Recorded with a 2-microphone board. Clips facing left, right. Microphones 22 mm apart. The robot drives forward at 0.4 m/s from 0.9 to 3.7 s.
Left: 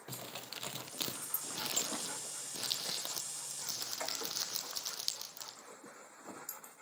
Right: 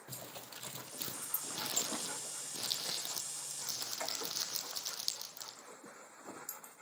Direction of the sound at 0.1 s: 65° left (ahead or behind).